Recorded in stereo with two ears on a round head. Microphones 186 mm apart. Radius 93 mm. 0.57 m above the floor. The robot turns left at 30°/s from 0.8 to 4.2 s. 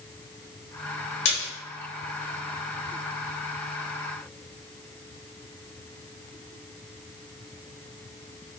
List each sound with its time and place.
1.2 s a splash: 65° left (ahead or behind), 1.0 m; by 1.5 s 55° left (ahead or behind), 1.0 m